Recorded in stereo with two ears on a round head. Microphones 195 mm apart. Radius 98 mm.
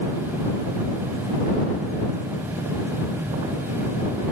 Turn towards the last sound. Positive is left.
No sound to turn to.